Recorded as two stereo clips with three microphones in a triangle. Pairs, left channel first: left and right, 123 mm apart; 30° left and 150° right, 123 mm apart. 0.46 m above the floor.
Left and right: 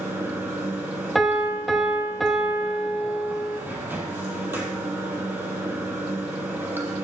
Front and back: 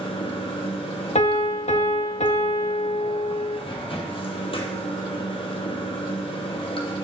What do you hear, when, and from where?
0.0 s running water: 15° right, 1.5 m
1.1 s a piano: straight ahead, 0.7 m